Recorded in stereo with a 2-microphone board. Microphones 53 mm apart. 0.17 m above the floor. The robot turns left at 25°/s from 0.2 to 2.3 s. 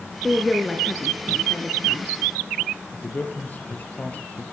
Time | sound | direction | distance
0.2 | a woman speaking | 5° right (ahead or behind) | 2 m
2.9 | a man speaking | 35° left (ahead or behind) | 3 m